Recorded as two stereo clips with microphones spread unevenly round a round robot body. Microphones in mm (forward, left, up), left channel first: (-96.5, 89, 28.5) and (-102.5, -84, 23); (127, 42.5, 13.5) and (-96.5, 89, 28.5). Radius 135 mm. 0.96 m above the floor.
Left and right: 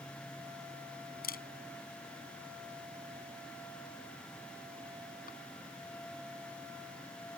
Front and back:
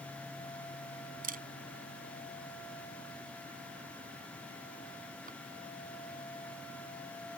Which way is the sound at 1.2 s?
115° left.